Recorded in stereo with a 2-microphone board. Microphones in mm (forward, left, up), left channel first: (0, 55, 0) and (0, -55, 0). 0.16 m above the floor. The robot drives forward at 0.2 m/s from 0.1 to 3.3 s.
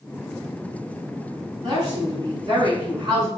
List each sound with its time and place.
1.6 s a woman speaking: 45° right (ahead or behind), 1.3 m